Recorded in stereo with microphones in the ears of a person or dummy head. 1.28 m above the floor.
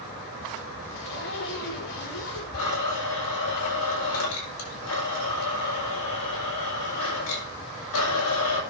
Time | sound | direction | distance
0.9 | a zipper | 70° left (ahead or behind) | 5 m
2.5 | a blender | 75° left (ahead or behind) | 7 m